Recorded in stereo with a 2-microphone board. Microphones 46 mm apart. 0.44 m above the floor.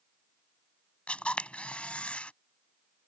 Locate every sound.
1.1 s a camera shutter: 30° left (ahead or behind)